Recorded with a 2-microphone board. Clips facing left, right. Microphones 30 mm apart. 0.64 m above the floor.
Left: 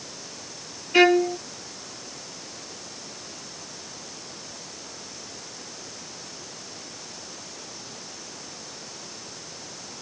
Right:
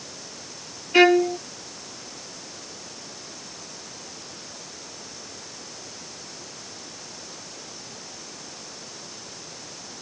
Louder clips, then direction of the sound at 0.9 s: Right 1 dB; 5° right (ahead or behind).